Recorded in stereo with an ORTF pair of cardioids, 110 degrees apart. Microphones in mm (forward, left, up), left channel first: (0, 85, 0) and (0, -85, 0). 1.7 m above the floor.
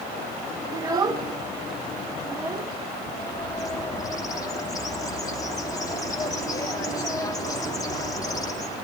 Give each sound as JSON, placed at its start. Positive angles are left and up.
{"t": 0.7, "sound": "a child speaking", "azimuth_deg": -25, "distance_m": 1.4}
{"t": 3.0, "sound": "a bird", "azimuth_deg": 20, "distance_m": 3.0}